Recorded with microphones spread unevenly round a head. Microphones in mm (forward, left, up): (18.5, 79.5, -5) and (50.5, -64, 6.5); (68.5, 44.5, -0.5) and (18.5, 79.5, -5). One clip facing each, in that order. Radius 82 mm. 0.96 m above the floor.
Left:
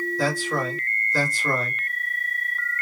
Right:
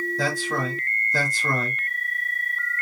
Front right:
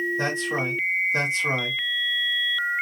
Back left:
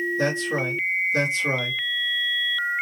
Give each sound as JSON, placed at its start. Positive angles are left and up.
{"t": 0.2, "sound": "a man speaking", "azimuth_deg": -105, "distance_m": 2.0}